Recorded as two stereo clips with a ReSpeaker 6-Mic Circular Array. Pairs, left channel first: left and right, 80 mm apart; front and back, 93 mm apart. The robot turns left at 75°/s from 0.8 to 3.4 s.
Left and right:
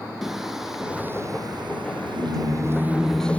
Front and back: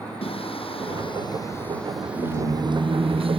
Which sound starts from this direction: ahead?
Singing, at 0.2 s.